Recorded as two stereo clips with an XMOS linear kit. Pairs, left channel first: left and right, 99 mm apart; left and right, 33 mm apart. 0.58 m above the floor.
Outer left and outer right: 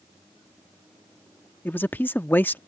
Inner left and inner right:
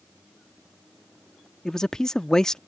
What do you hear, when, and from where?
1.6 s a man speaking: 20° left (ahead or behind)